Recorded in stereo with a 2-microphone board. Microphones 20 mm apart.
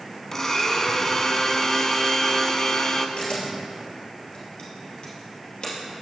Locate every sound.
0.3 s a blender: 25° left (ahead or behind), 0.6 m
3.2 s a camera shutter: 55° left (ahead or behind), 2.5 m